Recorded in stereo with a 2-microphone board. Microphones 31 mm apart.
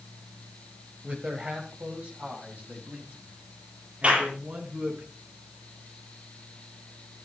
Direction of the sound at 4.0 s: 40° right (ahead or behind).